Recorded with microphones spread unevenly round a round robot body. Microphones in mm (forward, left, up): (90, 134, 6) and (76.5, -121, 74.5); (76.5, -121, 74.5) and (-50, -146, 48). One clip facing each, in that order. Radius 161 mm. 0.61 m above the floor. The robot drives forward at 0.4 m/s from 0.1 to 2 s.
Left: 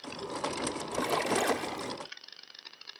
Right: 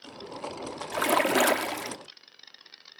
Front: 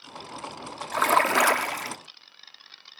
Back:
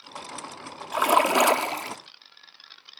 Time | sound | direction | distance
0.9 | a splash | 100° right | ?